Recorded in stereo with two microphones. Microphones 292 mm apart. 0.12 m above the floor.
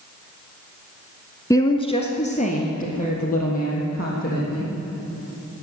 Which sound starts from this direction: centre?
A woman speaking, at 1.5 s.